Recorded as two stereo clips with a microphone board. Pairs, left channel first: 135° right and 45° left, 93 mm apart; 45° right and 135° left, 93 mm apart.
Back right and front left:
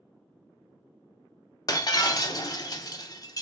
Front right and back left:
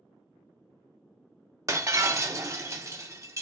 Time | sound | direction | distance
1.7 | breaking glass | 175° right | 0.5 m